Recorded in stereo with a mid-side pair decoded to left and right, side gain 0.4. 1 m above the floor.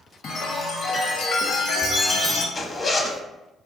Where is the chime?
70° left, 0.7 m.